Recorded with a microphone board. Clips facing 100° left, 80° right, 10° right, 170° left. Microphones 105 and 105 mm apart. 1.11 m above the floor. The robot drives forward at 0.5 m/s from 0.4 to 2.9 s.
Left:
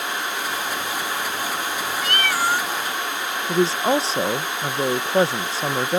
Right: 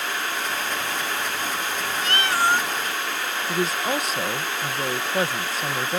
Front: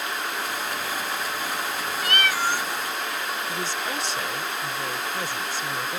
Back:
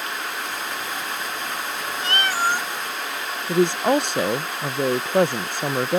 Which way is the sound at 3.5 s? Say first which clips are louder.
Left 6 dB, back 11 dB; 150° left.